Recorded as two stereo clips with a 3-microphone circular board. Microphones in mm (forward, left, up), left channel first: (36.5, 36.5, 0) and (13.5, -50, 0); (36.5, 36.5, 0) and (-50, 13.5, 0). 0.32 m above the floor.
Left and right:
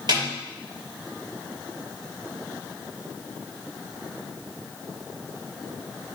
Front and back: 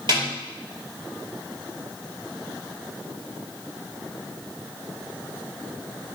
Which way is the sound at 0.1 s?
135° right.